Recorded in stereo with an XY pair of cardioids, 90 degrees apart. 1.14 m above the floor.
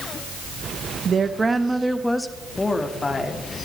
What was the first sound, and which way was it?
A woman speaking, 50° right.